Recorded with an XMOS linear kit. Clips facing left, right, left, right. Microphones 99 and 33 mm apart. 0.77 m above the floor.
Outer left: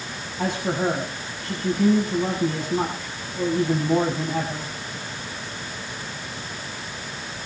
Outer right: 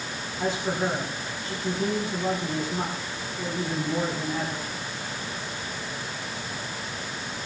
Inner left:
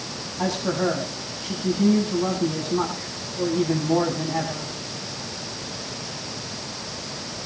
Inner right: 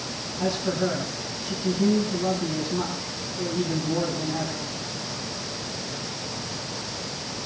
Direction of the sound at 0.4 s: 80° left.